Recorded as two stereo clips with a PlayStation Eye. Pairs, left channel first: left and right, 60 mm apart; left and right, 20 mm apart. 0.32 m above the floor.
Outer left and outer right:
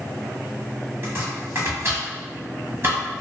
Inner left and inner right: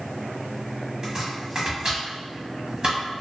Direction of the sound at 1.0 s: 40° right (ahead or behind).